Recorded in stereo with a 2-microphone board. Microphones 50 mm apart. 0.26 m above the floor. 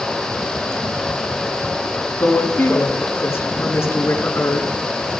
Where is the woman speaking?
60° left (ahead or behind), 2.5 m.